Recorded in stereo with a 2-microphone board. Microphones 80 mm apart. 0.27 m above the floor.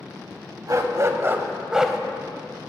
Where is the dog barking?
45° right (ahead or behind), 0.6 m; by 2.0 s centre (ahead or behind), 0.6 m.